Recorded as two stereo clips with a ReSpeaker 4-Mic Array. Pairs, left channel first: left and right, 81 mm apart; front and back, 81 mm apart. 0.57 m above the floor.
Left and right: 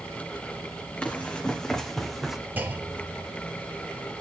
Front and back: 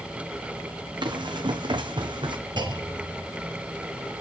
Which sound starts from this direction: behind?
Running footsteps, at 1.0 s.